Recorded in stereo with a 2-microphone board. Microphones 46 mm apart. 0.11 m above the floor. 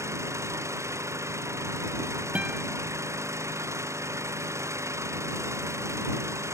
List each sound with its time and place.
0.0 s an engine running: 85° right
2.4 s a guitar: 30° right (ahead or behind)